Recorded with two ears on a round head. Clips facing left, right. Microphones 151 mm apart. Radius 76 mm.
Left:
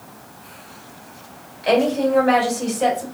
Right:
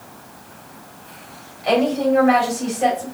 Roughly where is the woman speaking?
Left.